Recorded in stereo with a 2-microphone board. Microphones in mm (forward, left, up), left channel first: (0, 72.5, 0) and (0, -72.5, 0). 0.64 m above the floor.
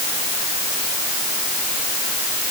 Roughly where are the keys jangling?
No keys jangling in this recording.